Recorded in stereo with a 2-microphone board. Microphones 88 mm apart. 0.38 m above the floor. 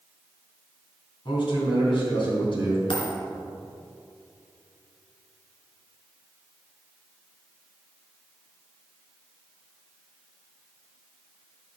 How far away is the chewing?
I don't hear chewing.